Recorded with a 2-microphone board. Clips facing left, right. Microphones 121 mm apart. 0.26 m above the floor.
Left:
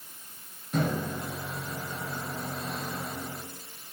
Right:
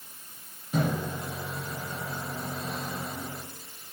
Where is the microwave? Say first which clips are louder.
Even; 5° right (ahead or behind), 1.2 m.